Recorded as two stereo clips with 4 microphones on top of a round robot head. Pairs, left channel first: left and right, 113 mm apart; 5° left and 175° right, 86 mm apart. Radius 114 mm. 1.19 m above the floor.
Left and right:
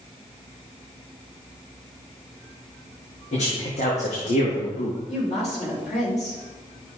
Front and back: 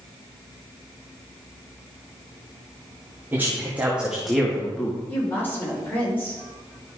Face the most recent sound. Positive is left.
turn(degrees=70)